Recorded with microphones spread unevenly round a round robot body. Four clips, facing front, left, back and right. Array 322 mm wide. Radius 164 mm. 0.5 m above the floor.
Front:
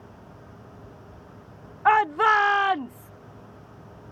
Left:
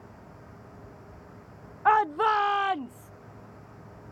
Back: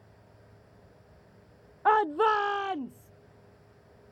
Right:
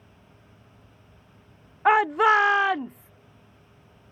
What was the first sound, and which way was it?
A shout, 135° right.